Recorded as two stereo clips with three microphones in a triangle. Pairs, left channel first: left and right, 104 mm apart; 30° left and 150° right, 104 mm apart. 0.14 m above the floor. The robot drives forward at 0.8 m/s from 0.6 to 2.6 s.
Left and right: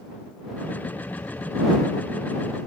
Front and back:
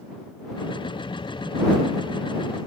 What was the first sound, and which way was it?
Only background noise.